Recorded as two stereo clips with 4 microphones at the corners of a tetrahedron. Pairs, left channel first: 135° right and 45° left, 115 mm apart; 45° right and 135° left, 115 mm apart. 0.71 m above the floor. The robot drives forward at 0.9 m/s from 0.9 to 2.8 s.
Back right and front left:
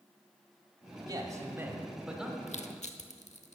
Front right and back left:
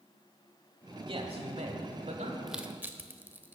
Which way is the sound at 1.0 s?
95° left.